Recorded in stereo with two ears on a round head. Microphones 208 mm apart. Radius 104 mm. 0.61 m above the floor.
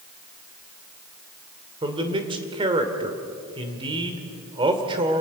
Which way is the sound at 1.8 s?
20° right (ahead or behind).